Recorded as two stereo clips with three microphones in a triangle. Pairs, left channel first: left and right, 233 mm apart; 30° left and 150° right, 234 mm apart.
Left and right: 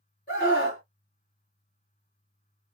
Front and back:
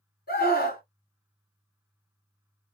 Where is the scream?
55° left, 1.7 m.